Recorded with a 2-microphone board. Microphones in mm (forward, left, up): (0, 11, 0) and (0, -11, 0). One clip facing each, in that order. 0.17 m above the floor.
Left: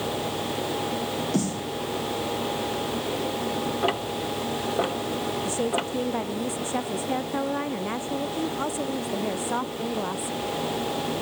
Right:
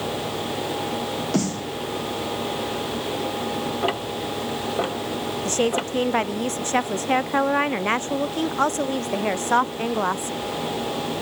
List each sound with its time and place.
1.3 s a snare drum: 35° right (ahead or behind)
3.8 s ticking: centre (ahead or behind)
5.5 s a woman speaking: 70° right (ahead or behind)